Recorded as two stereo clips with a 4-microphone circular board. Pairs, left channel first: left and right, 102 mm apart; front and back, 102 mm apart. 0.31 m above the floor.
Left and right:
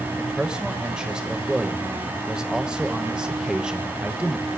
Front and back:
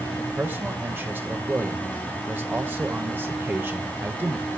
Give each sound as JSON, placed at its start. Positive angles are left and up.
{"t": 0.2, "sound": "a man speaking", "azimuth_deg": -155, "distance_m": 1.1}